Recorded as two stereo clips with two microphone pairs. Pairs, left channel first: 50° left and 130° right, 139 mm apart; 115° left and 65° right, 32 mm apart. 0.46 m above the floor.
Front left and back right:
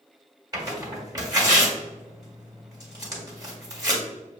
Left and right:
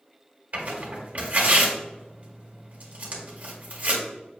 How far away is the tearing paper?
About 1.9 m.